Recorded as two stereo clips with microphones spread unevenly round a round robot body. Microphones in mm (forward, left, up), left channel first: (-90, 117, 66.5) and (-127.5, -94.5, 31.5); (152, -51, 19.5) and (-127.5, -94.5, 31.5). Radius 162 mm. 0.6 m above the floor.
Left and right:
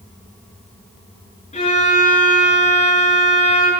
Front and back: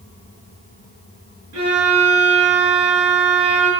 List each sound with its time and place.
1.5 s a violin: 140° left, 5.5 m